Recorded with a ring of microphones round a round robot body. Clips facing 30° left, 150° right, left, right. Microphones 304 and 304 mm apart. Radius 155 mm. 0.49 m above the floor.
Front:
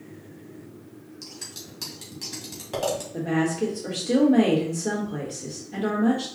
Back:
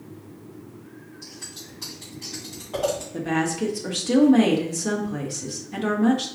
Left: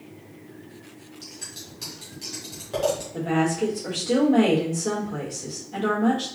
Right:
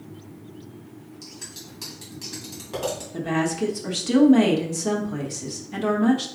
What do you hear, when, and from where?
1.2 s scissors: 10° right, 2 m
3.1 s a woman speaking: 90° right, 1.3 m